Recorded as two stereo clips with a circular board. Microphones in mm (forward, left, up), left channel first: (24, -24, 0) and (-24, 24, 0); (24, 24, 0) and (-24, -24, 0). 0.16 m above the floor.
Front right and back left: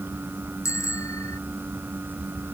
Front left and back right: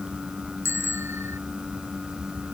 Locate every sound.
0.7 s a bicycle bell: 85° right